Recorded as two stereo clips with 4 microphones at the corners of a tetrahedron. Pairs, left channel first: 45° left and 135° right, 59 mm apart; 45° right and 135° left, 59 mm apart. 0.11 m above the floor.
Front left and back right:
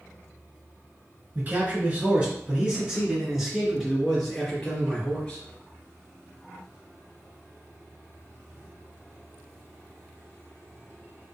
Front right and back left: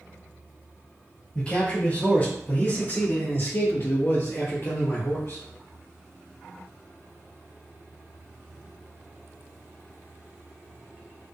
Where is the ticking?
No ticking in this recording.